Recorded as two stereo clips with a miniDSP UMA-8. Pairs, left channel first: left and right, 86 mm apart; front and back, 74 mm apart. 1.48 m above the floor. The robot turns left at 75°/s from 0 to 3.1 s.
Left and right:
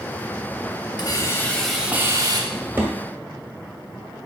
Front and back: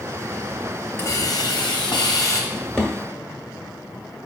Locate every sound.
1.0 s a hiss: 55° left, 0.7 m; by 2.4 s 55° right, 0.7 m
2.5 s a drawer: 40° right, 1.2 m; by 2.9 s 70° right, 1.2 m